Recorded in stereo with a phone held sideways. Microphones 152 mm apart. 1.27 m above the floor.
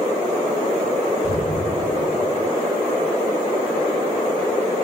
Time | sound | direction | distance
1.2 | an explosion | 90° left | 4.5 m